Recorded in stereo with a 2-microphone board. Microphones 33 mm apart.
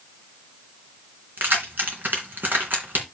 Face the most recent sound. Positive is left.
turn(degrees=-70)  # may be behind; listen again after turning